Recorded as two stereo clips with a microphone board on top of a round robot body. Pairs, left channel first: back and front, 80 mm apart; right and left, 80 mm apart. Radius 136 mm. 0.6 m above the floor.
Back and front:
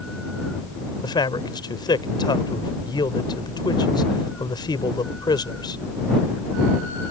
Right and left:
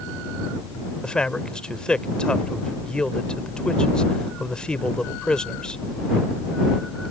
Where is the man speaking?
170° right.